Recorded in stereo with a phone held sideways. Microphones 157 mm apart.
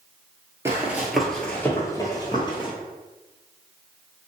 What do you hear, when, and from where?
0.7 s running footsteps: 15° right (ahead or behind), 0.9 m; by 2.7 s 35° left (ahead or behind), 1.2 m